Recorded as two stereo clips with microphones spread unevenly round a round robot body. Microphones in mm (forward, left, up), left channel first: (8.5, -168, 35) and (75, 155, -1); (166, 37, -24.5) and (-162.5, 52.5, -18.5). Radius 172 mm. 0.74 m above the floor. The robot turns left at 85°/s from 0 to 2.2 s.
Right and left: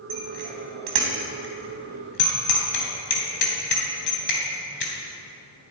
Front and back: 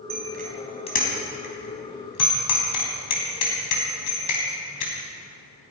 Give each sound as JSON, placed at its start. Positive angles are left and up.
{"t": 0.1, "sound": "a bicycle bell", "azimuth_deg": 135, "distance_m": 3.5}